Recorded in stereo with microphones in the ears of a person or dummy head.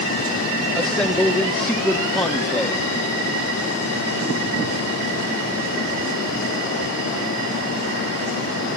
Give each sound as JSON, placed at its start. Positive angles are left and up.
{"t": 0.8, "sound": "a man speaking", "side_deg": 0, "distance_m": 1.3}